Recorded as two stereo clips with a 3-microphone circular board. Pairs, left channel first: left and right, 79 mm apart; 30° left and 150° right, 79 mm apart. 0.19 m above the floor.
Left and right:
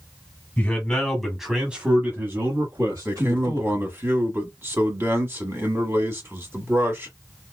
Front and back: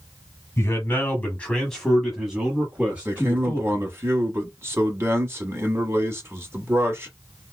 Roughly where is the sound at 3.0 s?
Behind right.